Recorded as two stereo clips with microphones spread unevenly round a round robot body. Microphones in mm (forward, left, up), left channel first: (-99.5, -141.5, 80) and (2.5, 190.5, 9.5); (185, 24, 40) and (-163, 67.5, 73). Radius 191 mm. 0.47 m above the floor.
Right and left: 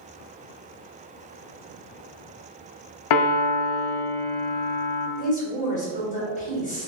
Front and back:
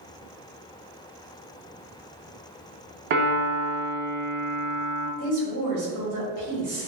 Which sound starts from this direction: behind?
A woman speaking, at 5.2 s.